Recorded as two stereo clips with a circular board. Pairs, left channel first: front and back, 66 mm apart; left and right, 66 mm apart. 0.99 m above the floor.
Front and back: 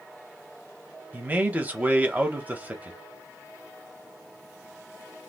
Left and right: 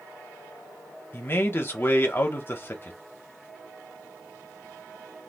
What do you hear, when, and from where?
1.1 s a man speaking: 125° left, 0.9 m